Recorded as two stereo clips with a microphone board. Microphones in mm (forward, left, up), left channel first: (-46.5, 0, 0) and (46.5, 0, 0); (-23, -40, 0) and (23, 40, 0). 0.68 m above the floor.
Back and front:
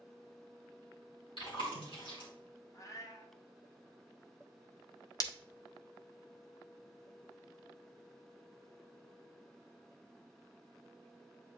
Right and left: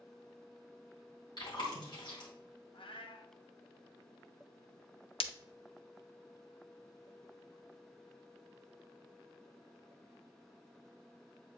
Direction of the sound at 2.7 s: 130° right.